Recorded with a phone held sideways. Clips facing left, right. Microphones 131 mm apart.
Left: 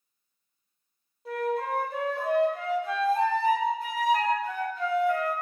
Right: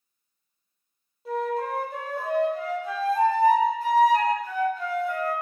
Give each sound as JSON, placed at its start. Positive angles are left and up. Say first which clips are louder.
{"t": 1.2, "sound": "a flute", "louder": "right 1 dB", "side_deg": -5, "distance_m": 1.2}